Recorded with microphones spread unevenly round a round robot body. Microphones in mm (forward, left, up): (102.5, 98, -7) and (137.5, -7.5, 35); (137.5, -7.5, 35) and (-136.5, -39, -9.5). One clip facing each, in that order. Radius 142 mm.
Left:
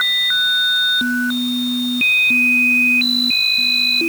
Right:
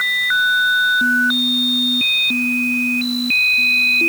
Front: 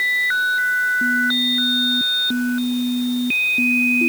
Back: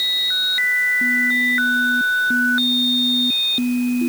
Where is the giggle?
I don't hear a giggle.